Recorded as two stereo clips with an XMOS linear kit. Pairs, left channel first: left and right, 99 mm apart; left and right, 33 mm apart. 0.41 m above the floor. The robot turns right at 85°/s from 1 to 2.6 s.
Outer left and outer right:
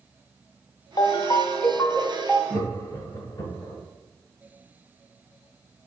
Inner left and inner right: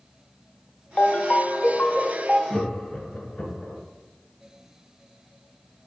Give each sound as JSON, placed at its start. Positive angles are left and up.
{"t": 1.0, "sound": "a ringtone", "azimuth_deg": 75, "distance_m": 0.5}
{"t": 2.5, "sound": "laughter", "side_deg": 45, "distance_m": 1.2}